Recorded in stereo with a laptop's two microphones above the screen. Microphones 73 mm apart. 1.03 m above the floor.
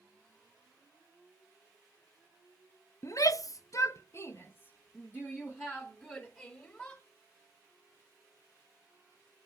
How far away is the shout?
About 0.5 m.